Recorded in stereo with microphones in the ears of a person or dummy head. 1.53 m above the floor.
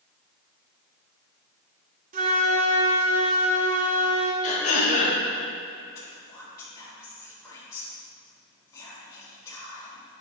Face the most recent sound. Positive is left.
turn(degrees=20)  # may be behind; listen again after turning